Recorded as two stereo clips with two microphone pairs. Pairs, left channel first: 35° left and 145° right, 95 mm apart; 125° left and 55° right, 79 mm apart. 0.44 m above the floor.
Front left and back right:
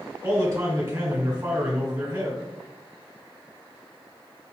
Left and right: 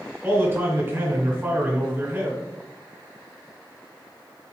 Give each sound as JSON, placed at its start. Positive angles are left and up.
{"t": 0.2, "sound": "a man speaking", "azimuth_deg": -105, "distance_m": 1.3}